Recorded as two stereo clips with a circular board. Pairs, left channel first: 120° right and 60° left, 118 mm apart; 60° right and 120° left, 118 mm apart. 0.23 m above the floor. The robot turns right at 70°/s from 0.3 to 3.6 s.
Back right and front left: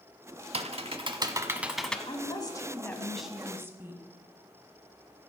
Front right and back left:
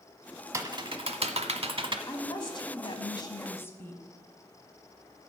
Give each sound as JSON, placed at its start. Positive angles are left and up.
{"t": 0.5, "sound": "typing on a keyboard", "azimuth_deg": 60, "distance_m": 0.7}
{"t": 2.1, "sound": "a woman speaking", "azimuth_deg": -110, "distance_m": 1.4}